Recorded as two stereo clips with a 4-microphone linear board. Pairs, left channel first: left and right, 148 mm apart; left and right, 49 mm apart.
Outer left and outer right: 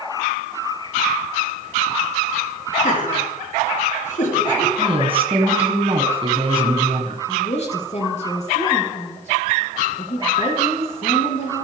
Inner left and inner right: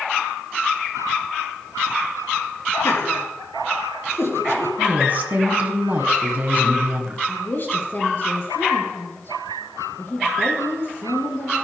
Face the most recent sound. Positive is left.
turn(degrees=50)  # may be behind; listen again after turning